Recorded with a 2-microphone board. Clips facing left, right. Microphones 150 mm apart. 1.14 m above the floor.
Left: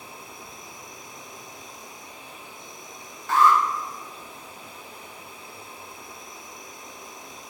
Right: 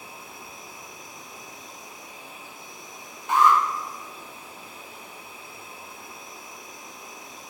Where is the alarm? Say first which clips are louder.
Even; 15° right (ahead or behind), 1.3 m.